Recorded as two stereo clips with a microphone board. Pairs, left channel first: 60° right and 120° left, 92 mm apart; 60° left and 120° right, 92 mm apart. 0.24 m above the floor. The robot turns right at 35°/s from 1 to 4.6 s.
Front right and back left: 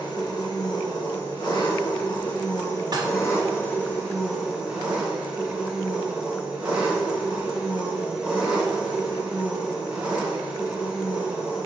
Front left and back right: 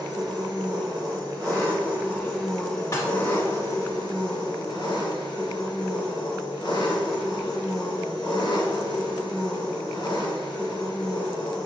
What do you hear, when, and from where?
0.0 s an engine running: 85° right, 2 m; by 11.7 s 40° left, 2 m
2.9 s dishes clattering: 105° left, 1.1 m; by 3.1 s 110° left, 1.1 m